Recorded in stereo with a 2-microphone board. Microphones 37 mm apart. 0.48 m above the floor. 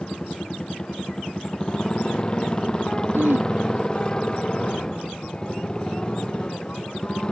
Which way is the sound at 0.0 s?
20° left (ahead or behind).